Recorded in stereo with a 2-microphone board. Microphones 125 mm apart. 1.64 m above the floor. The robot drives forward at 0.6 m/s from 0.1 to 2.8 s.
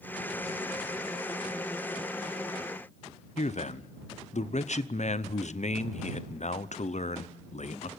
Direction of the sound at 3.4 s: 65° left (ahead or behind).